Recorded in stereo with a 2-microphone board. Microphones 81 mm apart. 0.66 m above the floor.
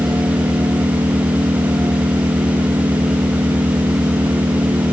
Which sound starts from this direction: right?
An engine running, at 0.0 s.